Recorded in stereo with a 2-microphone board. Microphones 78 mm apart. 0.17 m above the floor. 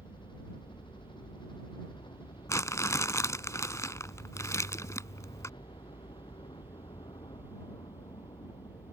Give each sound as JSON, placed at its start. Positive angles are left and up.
{"t": 0.0, "sound": "a helicopter", "side_deg": 80}
{"t": 2.5, "sound": "crumpling", "side_deg": 40}